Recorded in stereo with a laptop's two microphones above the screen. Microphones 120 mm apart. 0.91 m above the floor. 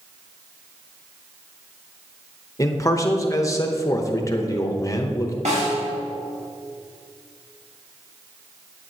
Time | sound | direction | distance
2.6 | a man speaking | 25° left (ahead or behind) | 0.8 m
5.5 | a snare drum | 80° right | 3 m